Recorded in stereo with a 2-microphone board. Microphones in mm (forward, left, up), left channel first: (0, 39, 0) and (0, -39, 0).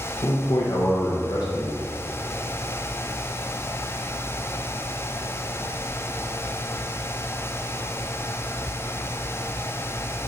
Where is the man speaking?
85° left, 1.2 m.